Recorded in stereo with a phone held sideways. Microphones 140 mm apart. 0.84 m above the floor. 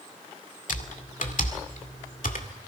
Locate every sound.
0.7 s typing on a keyboard: 70° left (ahead or behind), 2 m